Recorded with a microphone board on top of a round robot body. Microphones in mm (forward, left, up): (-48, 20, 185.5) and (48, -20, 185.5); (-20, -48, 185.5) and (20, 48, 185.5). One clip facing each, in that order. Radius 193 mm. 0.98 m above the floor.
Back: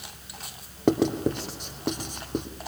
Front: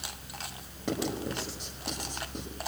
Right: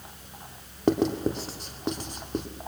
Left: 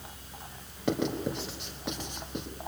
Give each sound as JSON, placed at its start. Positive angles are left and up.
{"t": 0.9, "sound": "writing", "azimuth_deg": -165, "distance_m": 2.5}